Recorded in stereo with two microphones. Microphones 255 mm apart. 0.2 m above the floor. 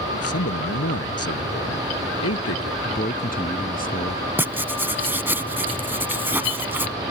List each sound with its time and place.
0.1 s a man speaking: 70° left (ahead or behind)
2.9 s a man speaking: 35° left (ahead or behind)
4.4 s writing: 10° right (ahead or behind)